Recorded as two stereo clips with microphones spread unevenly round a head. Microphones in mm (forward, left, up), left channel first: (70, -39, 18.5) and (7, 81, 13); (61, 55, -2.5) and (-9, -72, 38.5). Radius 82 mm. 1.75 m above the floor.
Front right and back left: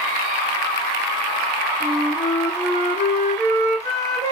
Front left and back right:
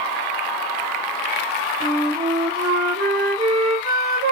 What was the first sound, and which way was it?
A flute, 155° right.